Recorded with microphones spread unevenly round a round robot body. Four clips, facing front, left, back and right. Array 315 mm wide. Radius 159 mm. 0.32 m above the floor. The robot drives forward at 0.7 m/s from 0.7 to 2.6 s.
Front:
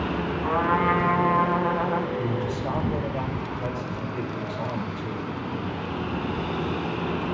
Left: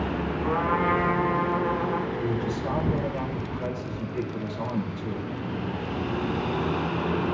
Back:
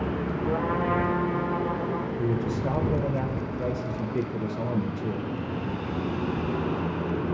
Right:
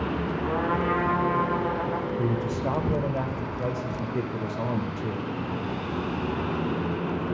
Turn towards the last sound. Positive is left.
turn(degrees=-140)